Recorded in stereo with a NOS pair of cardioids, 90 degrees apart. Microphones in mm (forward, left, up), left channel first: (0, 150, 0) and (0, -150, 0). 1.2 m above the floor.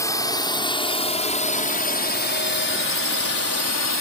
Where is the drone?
10° left; by 4.0 s 65° left.